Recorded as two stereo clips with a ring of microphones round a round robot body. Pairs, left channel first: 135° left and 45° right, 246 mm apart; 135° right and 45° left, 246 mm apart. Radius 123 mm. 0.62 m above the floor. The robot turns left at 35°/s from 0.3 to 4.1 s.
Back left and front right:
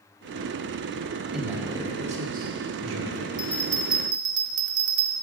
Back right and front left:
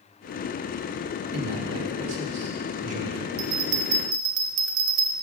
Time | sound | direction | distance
1.3 | a man speaking | 45° left | 1.3 m
3.4 | a bell | 30° left | 0.8 m